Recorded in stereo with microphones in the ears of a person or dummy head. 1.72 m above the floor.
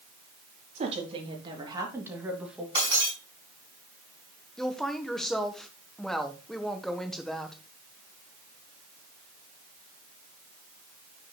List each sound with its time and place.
0.8 s a woman speaking: 40° right (ahead or behind), 3.5 m; by 2.6 s 5° right (ahead or behind), 3 m
2.8 s breaking glass: 25° right (ahead or behind), 5 m
4.6 s a woman speaking: 5° left (ahead or behind), 1.5 m